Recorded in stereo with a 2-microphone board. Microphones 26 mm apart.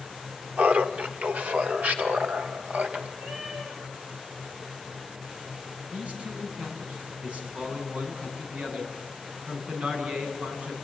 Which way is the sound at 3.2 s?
30° right (ahead or behind).